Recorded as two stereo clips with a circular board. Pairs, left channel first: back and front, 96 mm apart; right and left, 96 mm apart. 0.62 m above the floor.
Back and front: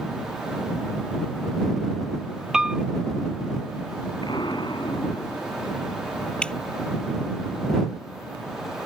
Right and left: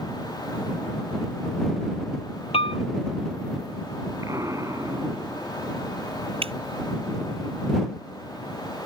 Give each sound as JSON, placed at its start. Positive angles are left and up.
{"t": 2.5, "sound": "a piano", "azimuth_deg": -85}
{"t": 4.2, "sound": "an explosion", "azimuth_deg": 145}
{"t": 6.4, "sound": "dripping", "azimuth_deg": 100}